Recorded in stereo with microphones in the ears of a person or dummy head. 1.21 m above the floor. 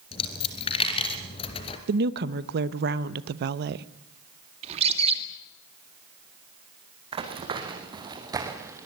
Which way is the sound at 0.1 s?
30° left (ahead or behind).